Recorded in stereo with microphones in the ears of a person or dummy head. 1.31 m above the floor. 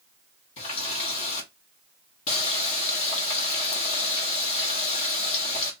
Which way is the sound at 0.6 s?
40° left (ahead or behind).